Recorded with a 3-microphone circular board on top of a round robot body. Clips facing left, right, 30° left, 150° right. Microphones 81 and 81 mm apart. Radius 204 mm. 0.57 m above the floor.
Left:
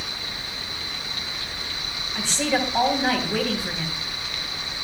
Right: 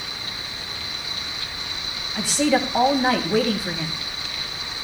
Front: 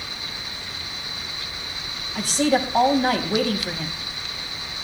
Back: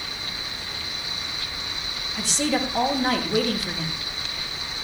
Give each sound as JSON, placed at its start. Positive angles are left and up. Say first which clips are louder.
{"t": 2.1, "sound": "a woman speaking", "louder": "right 4 dB, front 4 dB", "azimuth_deg": -10, "distance_m": 4.5}